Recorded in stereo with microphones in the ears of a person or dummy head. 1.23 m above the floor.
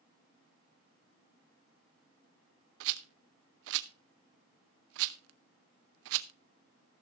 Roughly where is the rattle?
Right.